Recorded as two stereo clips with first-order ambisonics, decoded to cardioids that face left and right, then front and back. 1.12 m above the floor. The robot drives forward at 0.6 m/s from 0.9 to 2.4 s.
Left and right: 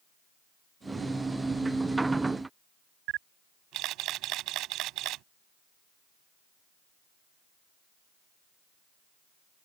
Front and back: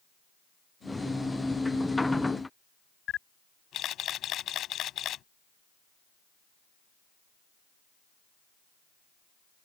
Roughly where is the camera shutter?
Ahead right.